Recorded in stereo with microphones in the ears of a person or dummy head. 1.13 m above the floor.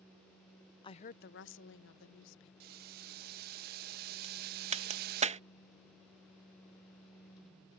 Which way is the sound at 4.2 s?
35° right (ahead or behind).